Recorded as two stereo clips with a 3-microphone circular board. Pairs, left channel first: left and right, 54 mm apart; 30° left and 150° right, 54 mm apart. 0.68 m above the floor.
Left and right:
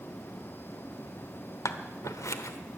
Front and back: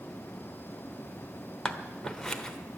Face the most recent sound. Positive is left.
turn(degrees=110)